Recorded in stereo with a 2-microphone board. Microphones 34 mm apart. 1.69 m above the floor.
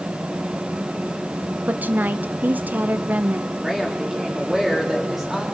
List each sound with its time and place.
1.7 s a woman speaking: 60° right (ahead or behind), 1.0 m
3.6 s a woman speaking: 15° right (ahead or behind), 7 m